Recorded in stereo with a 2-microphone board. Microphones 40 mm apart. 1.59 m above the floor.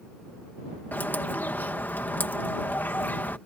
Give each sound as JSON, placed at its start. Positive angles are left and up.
{"t": 0.9, "sound": "a bird", "side_deg": 55}